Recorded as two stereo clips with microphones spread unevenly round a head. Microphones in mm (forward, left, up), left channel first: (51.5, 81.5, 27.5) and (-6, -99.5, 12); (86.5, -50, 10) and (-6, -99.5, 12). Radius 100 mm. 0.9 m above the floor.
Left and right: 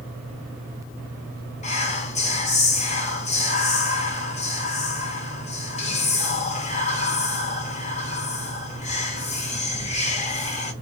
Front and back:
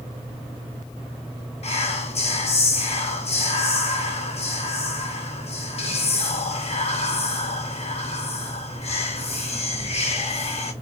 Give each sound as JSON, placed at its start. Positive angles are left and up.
{"t": 1.6, "sound": "whispering", "azimuth_deg": 15, "distance_m": 1.0}